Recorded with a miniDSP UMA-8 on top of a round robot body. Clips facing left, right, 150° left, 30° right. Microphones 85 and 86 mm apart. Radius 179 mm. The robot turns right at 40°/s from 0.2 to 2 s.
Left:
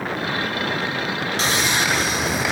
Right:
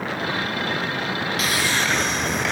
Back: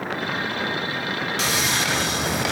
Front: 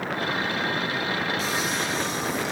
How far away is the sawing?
About 0.9 m.